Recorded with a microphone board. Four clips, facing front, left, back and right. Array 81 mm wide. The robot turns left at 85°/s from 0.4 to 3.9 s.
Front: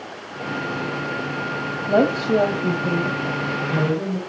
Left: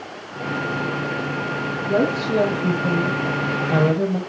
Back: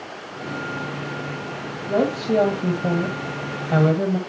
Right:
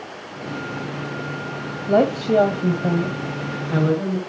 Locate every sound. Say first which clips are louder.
1.9 s a woman speaking: right 3 dB, front 3 dB; 60° right, 1.6 m; by 4.2 s 130° left, 1.6 m